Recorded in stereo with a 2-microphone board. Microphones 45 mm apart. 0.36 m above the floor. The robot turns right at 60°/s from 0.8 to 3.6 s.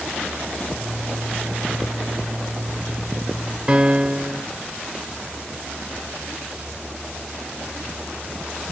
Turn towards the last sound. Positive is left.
turn(degrees=-25)  # may be behind; listen again after turning